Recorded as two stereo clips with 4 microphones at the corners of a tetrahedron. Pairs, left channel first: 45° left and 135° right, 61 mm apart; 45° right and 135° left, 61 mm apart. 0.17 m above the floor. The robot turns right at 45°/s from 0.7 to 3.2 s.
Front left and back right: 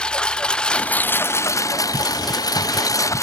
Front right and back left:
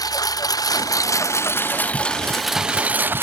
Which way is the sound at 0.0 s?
30° right.